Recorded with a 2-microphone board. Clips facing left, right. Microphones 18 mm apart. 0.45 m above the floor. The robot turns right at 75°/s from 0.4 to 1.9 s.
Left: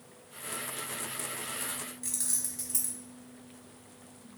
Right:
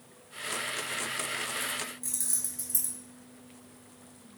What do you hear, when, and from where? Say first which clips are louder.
2.0 s keys jangling: even; 20° left (ahead or behind), 1.8 m